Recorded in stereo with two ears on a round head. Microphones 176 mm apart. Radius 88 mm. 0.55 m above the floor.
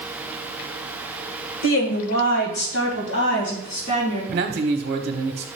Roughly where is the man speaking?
Right.